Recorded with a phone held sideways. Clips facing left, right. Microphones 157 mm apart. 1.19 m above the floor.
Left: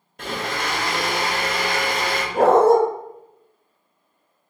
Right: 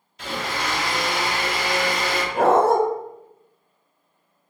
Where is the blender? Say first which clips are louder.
Left 1 dB; 55° left (ahead or behind), 0.7 m.